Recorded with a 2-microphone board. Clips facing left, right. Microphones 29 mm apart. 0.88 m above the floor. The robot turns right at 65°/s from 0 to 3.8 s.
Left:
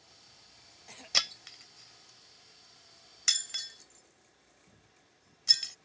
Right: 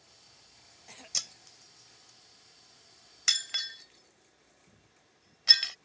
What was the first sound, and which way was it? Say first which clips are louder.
Breaking glass: left 8 dB; 50° left (ahead or behind).